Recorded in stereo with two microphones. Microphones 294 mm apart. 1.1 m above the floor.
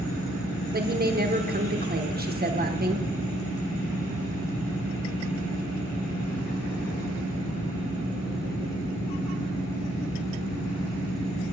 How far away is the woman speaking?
About 0.9 m.